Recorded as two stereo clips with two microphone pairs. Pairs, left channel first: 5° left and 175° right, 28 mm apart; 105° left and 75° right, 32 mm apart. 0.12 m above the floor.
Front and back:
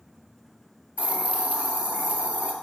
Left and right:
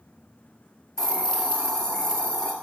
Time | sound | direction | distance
1.0 | a hiss | 175° left | 1.8 m